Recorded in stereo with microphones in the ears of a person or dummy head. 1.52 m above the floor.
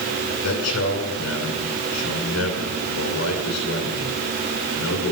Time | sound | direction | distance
0.4 | a man speaking | 85° left | 6.5 m